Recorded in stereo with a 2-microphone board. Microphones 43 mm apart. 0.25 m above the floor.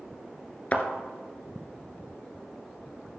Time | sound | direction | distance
0.7 | a thud | 35° left (ahead or behind) | 1.5 m